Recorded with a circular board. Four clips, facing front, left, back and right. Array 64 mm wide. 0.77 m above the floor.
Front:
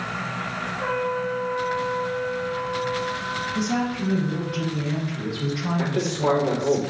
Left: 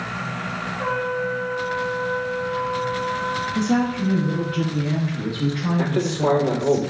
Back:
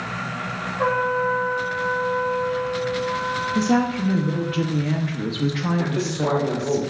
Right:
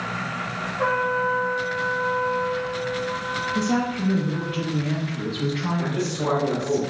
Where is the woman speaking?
Straight behind, 0.8 m.